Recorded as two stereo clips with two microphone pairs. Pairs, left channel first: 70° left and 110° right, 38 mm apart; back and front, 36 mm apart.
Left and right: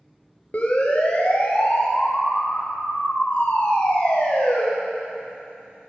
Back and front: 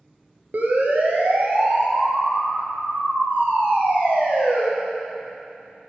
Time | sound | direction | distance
0.5 | a siren | 30° left | 3 m